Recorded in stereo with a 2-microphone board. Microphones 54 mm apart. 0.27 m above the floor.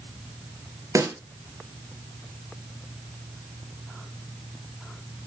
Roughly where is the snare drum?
Right.